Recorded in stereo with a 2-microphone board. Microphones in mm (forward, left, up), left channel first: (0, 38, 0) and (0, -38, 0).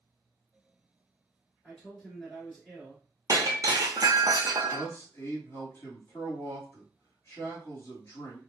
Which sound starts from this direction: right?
Breaking glass, at 3.3 s.